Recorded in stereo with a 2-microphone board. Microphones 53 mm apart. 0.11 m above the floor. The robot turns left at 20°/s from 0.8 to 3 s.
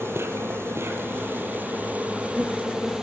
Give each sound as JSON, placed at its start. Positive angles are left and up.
{"t": 0.0, "sound": "an insect", "azimuth_deg": -125, "distance_m": 2.5}